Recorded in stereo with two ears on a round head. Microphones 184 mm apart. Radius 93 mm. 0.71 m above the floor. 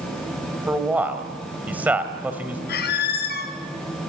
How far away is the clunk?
I don't hear a clunk.